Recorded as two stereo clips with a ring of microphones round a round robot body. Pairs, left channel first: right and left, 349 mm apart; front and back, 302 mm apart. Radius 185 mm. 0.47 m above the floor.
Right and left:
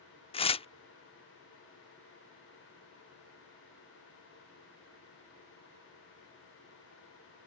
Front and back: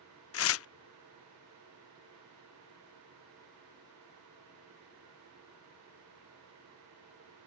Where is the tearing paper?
20° right.